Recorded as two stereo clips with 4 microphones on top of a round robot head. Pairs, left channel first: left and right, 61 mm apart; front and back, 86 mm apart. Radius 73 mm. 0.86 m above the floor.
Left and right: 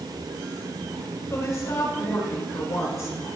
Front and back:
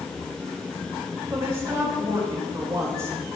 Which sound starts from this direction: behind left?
A woman speaking, at 1.3 s.